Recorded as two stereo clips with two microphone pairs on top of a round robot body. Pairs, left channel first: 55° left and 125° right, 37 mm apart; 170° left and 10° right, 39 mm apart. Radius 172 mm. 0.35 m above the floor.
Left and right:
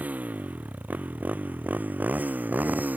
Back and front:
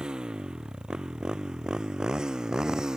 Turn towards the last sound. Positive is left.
turn(degrees=-80)